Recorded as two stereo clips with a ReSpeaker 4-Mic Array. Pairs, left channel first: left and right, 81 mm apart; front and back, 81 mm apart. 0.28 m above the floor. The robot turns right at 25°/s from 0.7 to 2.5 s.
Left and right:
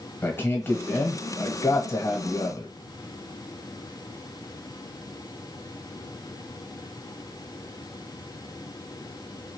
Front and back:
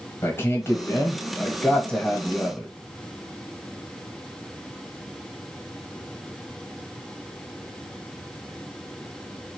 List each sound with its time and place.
0.2 s a man speaking: 45° left, 1.1 m; by 2.7 s 90° left, 1.1 m